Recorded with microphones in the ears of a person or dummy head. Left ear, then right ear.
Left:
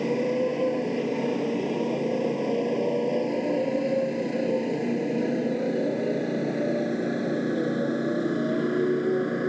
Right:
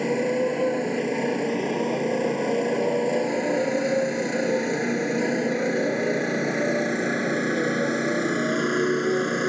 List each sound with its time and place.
0.0 s a motorcycle: 45° right (ahead or behind); by 9.5 s 65° right (ahead or behind)